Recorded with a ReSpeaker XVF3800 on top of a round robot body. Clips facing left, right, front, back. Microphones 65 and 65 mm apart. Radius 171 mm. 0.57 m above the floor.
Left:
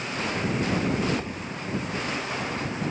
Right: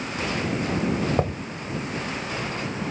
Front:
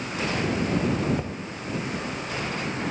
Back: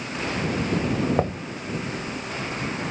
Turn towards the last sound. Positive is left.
turn(degrees=-135)